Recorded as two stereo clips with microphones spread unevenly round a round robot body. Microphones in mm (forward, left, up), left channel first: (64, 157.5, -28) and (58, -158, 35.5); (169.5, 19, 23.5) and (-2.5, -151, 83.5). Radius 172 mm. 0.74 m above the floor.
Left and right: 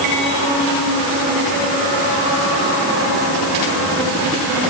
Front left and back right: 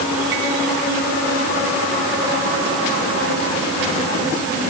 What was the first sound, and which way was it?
Only background noise.